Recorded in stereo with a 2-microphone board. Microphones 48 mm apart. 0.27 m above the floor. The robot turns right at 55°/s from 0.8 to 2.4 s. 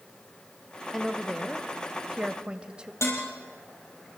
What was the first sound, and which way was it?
A woman speaking, centre (ahead or behind).